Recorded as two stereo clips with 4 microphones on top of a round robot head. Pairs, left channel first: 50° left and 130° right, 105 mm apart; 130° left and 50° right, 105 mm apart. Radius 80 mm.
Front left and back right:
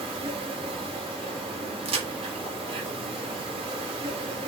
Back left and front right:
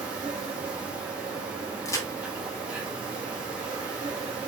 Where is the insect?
125° right, 2 m.